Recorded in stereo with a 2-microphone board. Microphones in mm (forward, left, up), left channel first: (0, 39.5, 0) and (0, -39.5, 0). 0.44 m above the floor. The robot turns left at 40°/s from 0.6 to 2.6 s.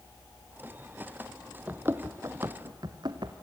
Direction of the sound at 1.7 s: 25° right (ahead or behind).